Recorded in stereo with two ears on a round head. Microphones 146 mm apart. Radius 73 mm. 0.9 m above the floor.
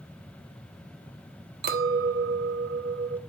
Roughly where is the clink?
Right.